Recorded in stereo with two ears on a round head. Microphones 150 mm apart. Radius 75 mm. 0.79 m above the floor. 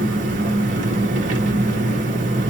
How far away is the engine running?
About 0.9 m.